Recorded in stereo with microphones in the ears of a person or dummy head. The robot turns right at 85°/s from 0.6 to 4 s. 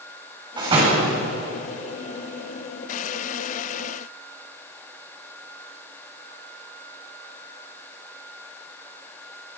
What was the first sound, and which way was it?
A door slam, 155° right.